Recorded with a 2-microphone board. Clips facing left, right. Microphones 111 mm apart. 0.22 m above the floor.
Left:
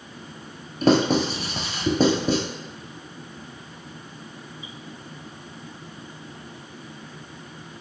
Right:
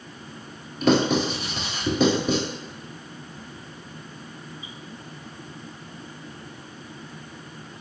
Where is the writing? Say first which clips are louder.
Left 1 dB; 40° left (ahead or behind), 0.8 m.